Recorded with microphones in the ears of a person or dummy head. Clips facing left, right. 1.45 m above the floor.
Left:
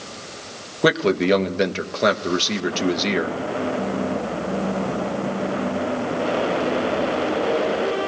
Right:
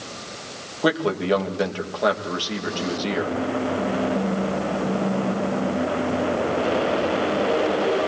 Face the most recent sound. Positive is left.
turn(degrees=30)  # may be behind; listen again after turning